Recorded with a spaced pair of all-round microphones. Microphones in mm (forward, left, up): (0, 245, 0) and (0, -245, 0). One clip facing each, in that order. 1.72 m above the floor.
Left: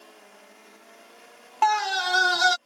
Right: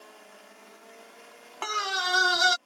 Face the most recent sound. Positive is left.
turn(degrees=10)  # may be behind; listen again after turning